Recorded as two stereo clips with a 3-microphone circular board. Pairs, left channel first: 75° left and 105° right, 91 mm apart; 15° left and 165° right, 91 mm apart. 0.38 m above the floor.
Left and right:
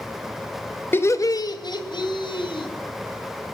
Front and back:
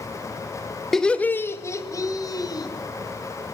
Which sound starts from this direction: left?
Laughter, at 0.9 s.